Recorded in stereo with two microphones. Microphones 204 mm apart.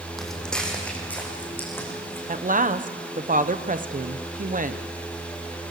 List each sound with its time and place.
0.2 s footsteps: centre (ahead or behind), 4 m; by 2.2 s 10° left (ahead or behind), 6.5 m
2.3 s a woman speaking: 40° right (ahead or behind), 1.0 m